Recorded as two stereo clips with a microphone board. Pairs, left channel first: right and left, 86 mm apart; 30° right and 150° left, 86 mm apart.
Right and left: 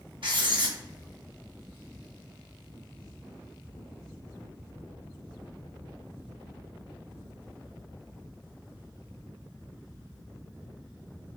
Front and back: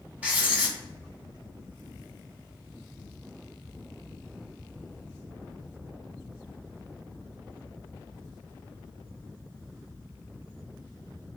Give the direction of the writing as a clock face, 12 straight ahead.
9 o'clock.